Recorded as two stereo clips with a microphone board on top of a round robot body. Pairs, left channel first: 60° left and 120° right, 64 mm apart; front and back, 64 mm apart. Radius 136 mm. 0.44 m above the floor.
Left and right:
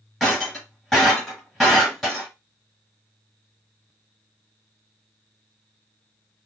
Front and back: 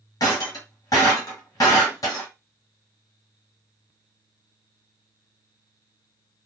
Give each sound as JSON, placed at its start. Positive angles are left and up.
{"t": 0.2, "sound": "breaking glass", "azimuth_deg": -25, "distance_m": 1.1}